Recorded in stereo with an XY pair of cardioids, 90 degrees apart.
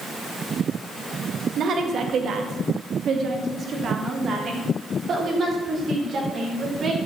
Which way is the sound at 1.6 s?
65° right.